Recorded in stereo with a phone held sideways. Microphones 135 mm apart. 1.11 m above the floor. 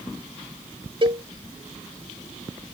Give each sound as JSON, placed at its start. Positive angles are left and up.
{"t": 1.0, "sound": "a cowbell", "side_deg": -40}